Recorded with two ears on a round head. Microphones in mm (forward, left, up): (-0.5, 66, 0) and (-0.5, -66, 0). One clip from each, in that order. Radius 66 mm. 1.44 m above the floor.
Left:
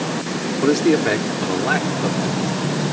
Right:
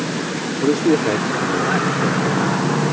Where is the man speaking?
55° left (ahead or behind); by 2.5 s 35° left (ahead or behind).